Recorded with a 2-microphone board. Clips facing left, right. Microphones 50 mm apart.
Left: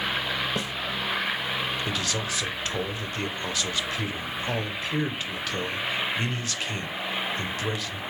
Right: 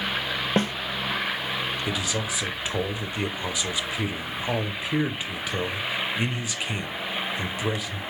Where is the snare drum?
45° right (ahead or behind), 0.6 m.